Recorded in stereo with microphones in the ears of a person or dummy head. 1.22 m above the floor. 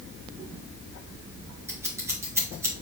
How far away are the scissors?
About 1.8 m.